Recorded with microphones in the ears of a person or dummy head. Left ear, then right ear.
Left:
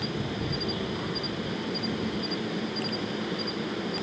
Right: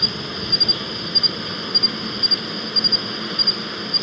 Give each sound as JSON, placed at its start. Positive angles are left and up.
{"t": 0.0, "sound": "an insect", "side_deg": -50}